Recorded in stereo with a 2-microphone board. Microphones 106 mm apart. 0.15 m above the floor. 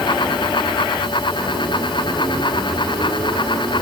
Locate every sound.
Only background noise.